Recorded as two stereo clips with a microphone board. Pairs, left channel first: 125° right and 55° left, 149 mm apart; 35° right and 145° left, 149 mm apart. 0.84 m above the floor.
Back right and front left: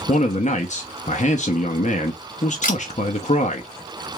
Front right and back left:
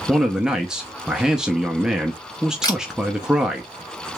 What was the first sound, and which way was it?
A man speaking, 130° right.